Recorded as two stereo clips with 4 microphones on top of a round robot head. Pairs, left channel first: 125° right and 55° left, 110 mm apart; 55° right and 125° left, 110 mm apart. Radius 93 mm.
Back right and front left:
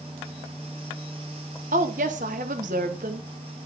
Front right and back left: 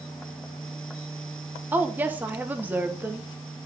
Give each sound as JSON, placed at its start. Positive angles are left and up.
{"t": 1.7, "sound": "a woman speaking", "azimuth_deg": 50, "distance_m": 0.9}